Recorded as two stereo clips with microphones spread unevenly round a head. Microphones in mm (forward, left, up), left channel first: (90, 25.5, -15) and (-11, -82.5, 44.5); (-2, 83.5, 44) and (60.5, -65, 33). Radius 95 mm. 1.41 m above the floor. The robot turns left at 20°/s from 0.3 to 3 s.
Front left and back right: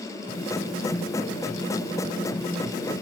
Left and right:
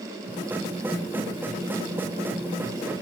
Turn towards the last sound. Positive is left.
No sound to turn to.